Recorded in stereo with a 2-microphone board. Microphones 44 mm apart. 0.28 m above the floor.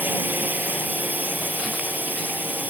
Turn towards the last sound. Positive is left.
turn(degrees=-45)  # may be behind; listen again after turning